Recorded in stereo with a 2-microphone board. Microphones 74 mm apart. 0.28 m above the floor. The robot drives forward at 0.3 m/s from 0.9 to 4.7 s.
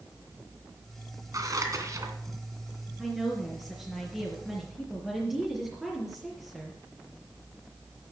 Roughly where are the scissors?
Right.